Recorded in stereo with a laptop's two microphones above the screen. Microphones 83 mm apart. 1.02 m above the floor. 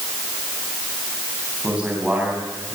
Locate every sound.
1.6 s a man speaking: 10° right (ahead or behind), 9 m